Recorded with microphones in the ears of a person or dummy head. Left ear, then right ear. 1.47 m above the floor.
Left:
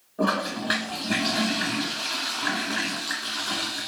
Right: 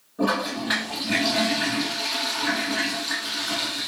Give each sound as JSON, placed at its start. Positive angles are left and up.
{"t": 0.2, "sound": "a toilet flushing", "side_deg": 10, "distance_m": 1.3}